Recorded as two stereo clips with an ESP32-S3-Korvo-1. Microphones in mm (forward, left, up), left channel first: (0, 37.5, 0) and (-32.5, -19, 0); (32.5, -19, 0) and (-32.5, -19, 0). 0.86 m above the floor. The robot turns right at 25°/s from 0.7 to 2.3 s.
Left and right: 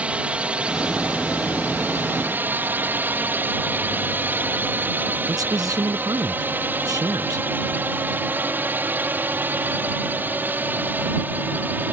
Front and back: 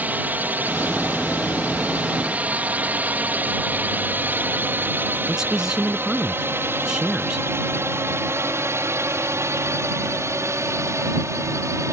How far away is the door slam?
I don't hear a door slam.